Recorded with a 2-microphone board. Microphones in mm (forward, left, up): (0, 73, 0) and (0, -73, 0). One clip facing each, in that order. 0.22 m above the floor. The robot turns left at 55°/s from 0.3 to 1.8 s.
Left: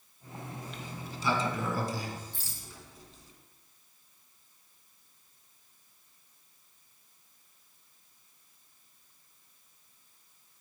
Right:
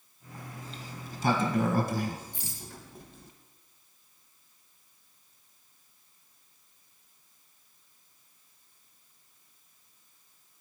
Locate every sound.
0.6 s a sliding door: 30° right (ahead or behind), 1.2 m; by 3.3 s 60° right (ahead or behind), 1.2 m
2.3 s a rattle: 20° right (ahead or behind), 1.7 m